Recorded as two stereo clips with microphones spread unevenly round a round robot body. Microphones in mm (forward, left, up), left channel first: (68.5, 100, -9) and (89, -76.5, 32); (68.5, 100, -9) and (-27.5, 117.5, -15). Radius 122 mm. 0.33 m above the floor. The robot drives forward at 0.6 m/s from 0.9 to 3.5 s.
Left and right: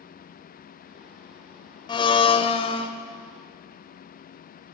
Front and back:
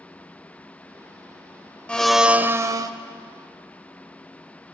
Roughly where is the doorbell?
No doorbell in this recording.